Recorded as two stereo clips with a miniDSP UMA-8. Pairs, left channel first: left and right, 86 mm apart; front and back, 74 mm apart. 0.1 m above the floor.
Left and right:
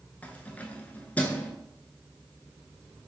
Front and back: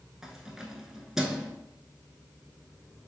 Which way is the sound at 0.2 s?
110° left.